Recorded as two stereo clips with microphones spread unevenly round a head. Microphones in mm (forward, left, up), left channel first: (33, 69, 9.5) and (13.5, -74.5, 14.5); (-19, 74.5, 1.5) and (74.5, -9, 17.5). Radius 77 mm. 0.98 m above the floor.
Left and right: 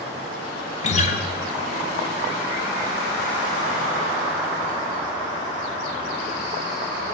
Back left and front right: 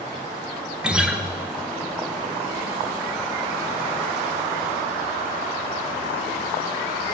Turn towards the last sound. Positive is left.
turn(degrees=40)